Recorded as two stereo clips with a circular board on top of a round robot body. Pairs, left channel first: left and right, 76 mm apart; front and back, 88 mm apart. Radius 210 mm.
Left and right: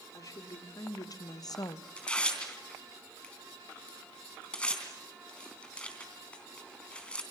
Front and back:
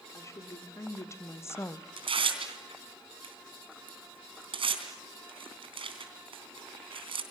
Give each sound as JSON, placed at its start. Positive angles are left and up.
{"t": 0.1, "sound": "a woman speaking", "azimuth_deg": 55, "distance_m": 3.0}
{"t": 2.0, "sound": "tearing paper", "azimuth_deg": 165, "distance_m": 3.5}